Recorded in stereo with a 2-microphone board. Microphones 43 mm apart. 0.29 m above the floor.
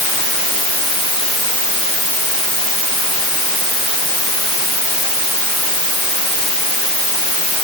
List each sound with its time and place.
Only background noise.